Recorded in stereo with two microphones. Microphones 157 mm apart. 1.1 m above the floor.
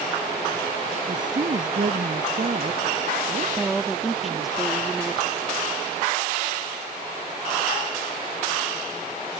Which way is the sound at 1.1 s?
55° right (ahead or behind).